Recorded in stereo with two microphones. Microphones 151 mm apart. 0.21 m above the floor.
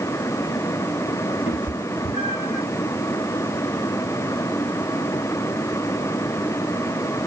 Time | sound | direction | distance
1.5 | a cat meowing | 50° left (ahead or behind) | 0.9 m